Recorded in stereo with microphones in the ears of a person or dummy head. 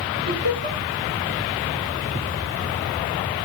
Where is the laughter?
65° right (ahead or behind), 10 m.